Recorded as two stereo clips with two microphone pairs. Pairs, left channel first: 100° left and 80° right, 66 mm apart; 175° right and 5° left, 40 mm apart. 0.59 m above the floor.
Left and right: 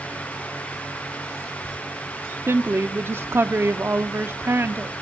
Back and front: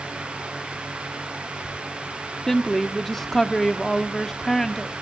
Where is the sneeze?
No sneeze in this recording.